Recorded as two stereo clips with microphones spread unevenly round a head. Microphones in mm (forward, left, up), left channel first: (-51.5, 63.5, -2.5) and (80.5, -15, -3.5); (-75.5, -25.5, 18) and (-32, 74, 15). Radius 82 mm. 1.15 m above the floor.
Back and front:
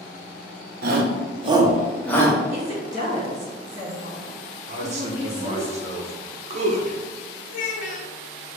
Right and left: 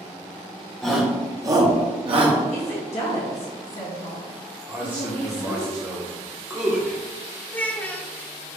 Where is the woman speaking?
80° right, 1.9 m.